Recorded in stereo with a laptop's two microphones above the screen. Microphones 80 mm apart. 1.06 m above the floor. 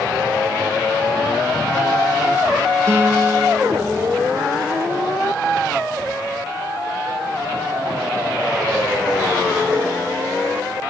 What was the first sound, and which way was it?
A guitar, 30° right (ahead or behind).